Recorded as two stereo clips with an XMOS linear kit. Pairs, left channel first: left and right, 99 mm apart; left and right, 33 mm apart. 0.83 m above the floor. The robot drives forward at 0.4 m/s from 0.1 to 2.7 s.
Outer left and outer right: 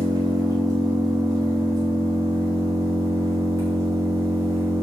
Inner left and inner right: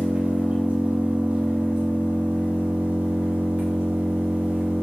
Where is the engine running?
40° right (ahead or behind), 5 m; by 4.8 s 35° right (ahead or behind), 5.5 m.